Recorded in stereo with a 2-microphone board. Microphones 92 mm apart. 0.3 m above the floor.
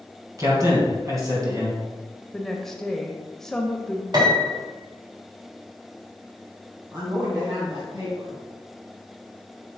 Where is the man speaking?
40° right (ahead or behind), 3 m.